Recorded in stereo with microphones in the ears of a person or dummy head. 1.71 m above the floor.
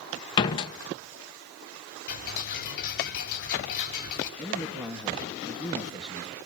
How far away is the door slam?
About 0.8 m.